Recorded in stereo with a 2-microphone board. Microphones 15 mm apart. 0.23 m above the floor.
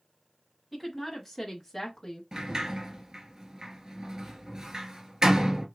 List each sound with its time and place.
0.7 s a woman speaking: 5° right (ahead or behind), 1.4 m; by 2.2 s 15° left (ahead or behind), 1.1 m
2.3 s a sliding door: 45° right (ahead or behind), 1.0 m